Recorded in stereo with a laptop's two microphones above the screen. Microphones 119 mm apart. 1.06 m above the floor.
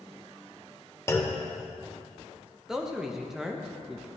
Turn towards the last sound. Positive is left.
turn(degrees=-5)  # may be behind; listen again after turning